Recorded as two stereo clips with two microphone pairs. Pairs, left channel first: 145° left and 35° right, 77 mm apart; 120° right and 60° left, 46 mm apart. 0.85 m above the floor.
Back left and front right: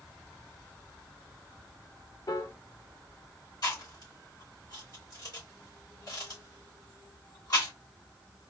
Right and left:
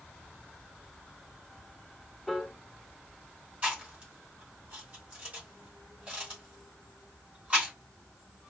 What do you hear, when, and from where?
2.3 s a piano: 150° left, 0.6 m
3.6 s chewing: 115° left, 2.5 m